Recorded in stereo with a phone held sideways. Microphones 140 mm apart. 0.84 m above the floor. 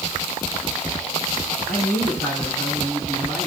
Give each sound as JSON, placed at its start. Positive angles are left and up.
{"t": 1.7, "sound": "a man speaking", "side_deg": -80, "distance_m": 8.0}